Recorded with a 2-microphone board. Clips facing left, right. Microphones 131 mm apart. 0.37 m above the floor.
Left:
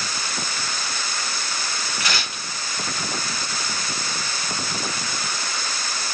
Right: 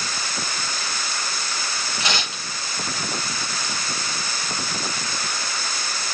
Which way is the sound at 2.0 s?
25° right (ahead or behind).